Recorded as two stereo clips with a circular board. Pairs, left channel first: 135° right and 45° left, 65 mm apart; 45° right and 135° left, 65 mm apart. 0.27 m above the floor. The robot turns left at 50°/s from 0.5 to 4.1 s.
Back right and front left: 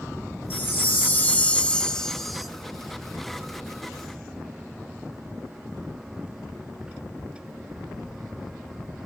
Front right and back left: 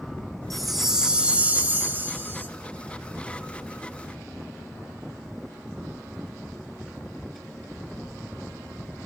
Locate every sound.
0.5 s a chime: 130° right, 0.6 m; by 2.5 s 130° left, 0.6 m